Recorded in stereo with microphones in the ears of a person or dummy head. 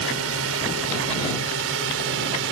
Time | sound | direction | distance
0.0 | a drone | 75° right (ahead or behind) | ?